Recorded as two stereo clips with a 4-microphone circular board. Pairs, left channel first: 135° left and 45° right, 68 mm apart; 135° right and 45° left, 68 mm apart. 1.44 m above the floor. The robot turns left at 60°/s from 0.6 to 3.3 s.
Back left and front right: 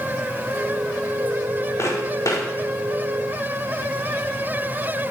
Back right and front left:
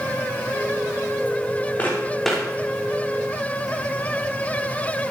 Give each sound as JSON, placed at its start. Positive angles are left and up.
{"t": 1.8, "sound": "footsteps", "azimuth_deg": 165, "distance_m": 5.0}